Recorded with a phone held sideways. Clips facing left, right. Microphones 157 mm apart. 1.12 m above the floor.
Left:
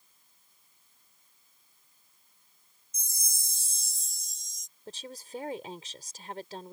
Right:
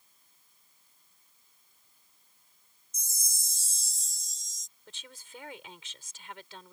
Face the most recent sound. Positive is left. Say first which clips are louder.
# left 10 dB
turn(degrees=40)  # may be behind; listen again after turning